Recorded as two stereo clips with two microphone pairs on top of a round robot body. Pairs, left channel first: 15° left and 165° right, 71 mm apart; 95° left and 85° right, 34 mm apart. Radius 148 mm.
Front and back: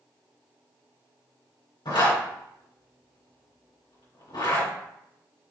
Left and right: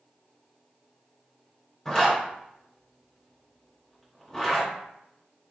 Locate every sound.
1.9 s a zipper: 20° left, 3 m